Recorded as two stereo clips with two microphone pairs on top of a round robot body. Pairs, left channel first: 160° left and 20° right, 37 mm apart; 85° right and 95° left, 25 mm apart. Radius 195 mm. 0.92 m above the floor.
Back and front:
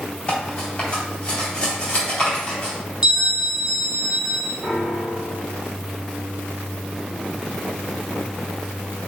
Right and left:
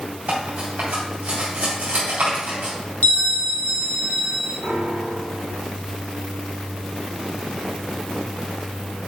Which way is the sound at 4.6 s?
75° left.